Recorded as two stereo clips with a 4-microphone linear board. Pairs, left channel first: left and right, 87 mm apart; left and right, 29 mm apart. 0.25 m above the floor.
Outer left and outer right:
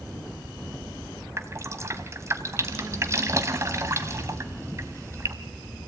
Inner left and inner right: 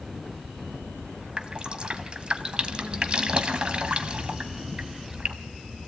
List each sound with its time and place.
1.4 s dripping: 35° right (ahead or behind), 1.1 m